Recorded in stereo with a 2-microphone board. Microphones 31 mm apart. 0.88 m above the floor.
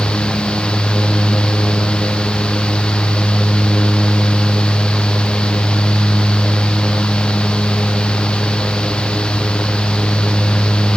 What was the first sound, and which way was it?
Only background noise.